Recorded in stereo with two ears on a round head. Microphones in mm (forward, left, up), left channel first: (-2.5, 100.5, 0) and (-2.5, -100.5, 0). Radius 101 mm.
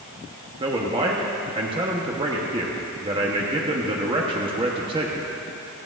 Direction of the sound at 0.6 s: 25° right (ahead or behind).